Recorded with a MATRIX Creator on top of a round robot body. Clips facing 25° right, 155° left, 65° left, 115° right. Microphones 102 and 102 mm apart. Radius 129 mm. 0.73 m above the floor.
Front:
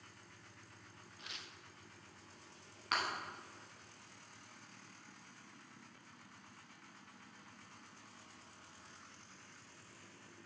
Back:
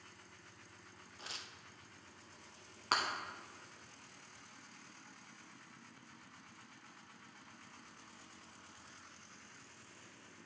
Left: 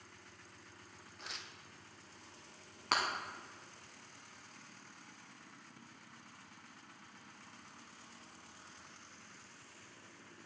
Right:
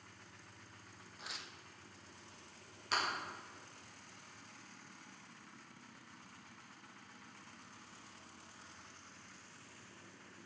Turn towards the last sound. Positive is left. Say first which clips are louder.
# back 2 dB, left 3 dB
turn(degrees=100)